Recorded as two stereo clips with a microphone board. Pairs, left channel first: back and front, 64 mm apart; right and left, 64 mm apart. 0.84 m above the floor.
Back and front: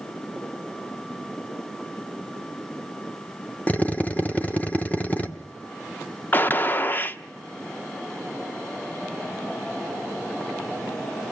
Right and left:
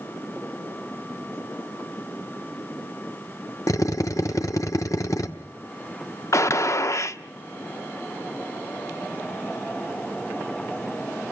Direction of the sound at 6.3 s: 125° right.